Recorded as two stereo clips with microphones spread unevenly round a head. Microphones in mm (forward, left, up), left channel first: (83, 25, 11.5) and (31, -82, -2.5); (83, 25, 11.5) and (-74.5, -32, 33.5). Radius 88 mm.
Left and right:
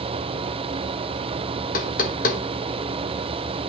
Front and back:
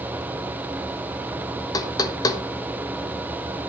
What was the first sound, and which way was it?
Knocking, 85° left.